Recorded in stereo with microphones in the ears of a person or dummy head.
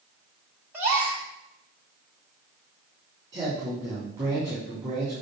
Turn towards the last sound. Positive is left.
turn(degrees=-25)  # may be behind; listen again after turning